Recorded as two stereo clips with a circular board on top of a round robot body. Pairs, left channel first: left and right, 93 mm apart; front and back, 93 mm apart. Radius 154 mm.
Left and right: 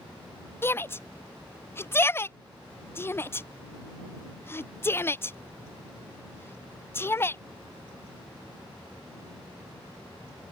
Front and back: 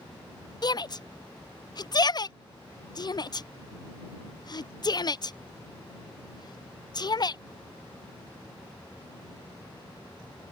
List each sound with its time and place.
0.6 s a shout: 30° left